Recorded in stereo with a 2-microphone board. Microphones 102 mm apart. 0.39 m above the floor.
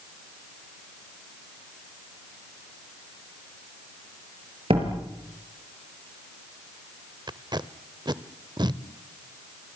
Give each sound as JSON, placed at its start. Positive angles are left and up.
{"t": 4.7, "sound": "a door slam", "side_deg": -55, "distance_m": 5.5}
{"t": 7.3, "sound": "tape being pulled", "side_deg": -40, "distance_m": 0.9}